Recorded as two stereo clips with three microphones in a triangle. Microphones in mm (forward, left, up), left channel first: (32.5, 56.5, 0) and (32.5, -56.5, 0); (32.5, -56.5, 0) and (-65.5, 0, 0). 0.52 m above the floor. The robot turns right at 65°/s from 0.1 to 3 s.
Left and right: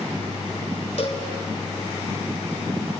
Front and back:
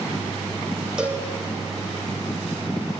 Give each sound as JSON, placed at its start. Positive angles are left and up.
{"t": 1.0, "sound": "a cowbell", "azimuth_deg": 70, "distance_m": 2.5}